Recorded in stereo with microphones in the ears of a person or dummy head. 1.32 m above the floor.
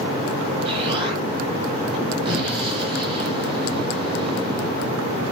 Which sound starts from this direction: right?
An explosion, at 0.7 s.